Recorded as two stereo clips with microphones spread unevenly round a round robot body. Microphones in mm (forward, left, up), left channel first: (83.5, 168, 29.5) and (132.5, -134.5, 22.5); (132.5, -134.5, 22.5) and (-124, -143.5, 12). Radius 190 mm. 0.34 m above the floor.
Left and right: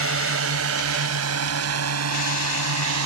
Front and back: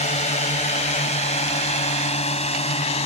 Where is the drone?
55° right; by 3.1 s 60° right.